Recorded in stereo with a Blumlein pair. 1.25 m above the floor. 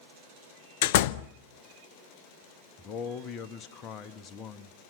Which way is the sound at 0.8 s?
50° left.